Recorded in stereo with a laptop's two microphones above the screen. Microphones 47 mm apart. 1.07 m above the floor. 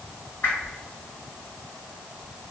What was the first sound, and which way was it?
A whoosh, 50° left (ahead or behind).